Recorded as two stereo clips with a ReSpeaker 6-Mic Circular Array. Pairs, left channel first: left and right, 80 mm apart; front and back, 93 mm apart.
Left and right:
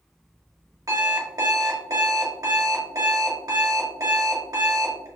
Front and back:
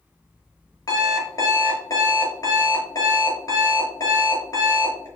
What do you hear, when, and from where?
0.9 s an alarm clock: 50° right, 1.3 m